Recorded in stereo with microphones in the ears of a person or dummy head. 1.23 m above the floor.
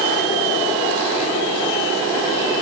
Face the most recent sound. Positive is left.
No sound to turn to.